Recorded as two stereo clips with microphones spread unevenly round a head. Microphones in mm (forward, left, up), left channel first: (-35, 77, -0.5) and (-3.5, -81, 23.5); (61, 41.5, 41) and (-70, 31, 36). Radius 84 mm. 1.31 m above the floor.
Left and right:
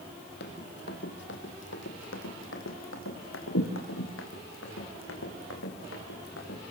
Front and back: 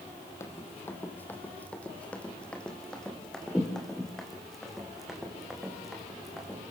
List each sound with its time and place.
0.4 s running footsteps: 70° left, 3 m; by 6.6 s 95° left, 6.5 m